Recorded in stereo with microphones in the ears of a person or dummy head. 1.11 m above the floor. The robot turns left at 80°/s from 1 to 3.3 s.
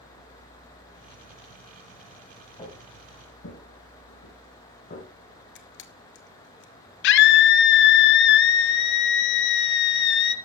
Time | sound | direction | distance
2.6 | footsteps | 25° left (ahead or behind) | 4.5 m
5.5 | a camera shutter | 55° left (ahead or behind) | 1.0 m
7.0 | a scream | 70° left (ahead or behind) | 0.6 m